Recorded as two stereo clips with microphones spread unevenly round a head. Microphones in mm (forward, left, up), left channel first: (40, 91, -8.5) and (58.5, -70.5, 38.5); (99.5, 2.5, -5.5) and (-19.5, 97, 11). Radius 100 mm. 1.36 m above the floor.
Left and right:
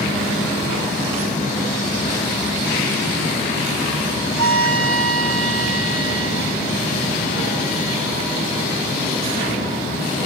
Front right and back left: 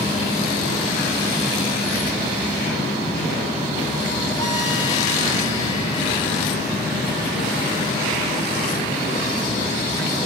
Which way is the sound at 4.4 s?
110° right.